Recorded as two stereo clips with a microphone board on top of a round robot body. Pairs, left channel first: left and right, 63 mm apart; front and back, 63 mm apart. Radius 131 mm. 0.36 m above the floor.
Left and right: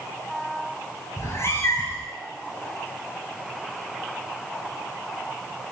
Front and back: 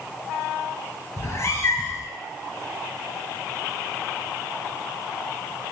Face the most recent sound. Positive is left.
turn(degrees=45)